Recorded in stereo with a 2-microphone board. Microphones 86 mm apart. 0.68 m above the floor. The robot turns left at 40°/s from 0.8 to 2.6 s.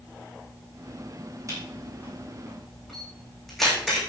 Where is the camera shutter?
40° right (ahead or behind), 7.5 m; by 4.0 s 5° left (ahead or behind), 7.5 m.